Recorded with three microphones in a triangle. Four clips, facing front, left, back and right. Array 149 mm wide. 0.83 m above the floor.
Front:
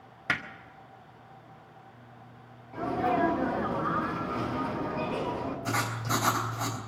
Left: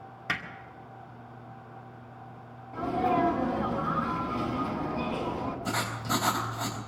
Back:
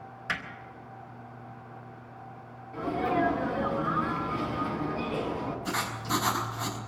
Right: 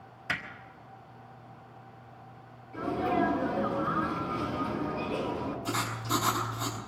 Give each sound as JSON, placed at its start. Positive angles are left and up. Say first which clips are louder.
{"t": 0.3, "sound": "hammering", "louder": "left 1 dB, front 3 dB", "azimuth_deg": 35, "distance_m": 1.8}
{"t": 2.7, "sound": "a sneeze", "louder": "left 2 dB, even", "azimuth_deg": 60, "distance_m": 7.5}
{"t": 5.7, "sound": "writing", "louder": "left 1 dB, front 1 dB", "azimuth_deg": 55, "distance_m": 3.5}